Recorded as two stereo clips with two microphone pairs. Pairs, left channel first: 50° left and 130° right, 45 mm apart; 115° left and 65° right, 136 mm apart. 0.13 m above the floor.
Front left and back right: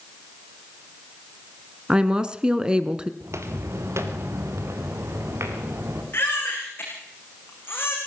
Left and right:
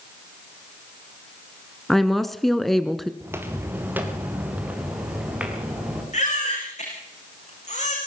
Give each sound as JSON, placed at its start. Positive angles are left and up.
{"t": 1.9, "sound": "a woman speaking", "azimuth_deg": -160, "distance_m": 1.0}
{"t": 3.2, "sound": "footsteps", "azimuth_deg": -135, "distance_m": 3.0}
{"t": 6.1, "sound": "a baby crying", "azimuth_deg": 85, "distance_m": 8.0}